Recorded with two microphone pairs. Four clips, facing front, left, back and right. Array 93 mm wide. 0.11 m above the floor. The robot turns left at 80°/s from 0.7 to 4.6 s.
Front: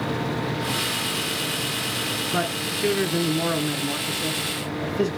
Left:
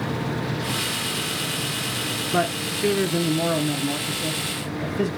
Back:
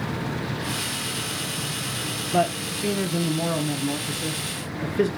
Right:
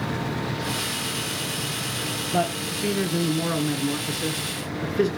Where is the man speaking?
65° left, 1.7 m; by 5.1 s 115° right, 1.7 m.